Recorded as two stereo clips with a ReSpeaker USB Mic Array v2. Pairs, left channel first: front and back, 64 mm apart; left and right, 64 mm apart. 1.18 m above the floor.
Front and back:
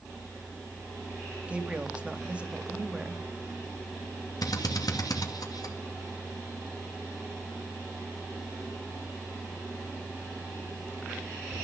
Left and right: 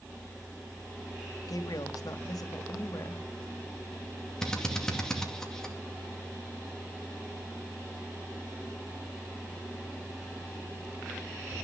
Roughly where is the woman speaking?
Left.